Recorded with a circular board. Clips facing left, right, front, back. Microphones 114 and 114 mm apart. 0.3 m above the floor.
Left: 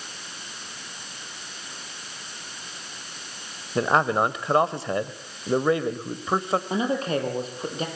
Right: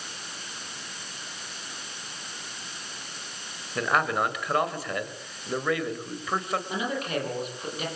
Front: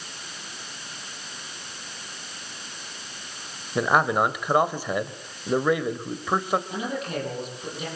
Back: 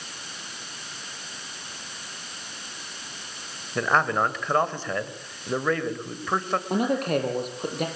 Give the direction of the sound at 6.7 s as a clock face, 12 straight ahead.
7 o'clock.